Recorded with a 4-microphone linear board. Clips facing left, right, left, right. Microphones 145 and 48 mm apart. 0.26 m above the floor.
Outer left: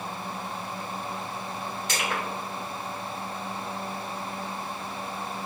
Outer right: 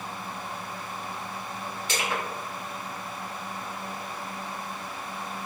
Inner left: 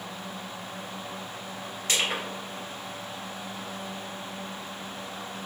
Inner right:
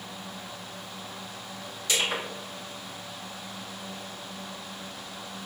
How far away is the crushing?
About 1.9 m.